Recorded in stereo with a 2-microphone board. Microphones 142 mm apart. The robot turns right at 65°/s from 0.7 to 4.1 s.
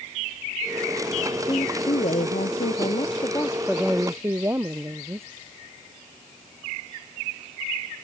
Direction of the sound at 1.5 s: 30° left.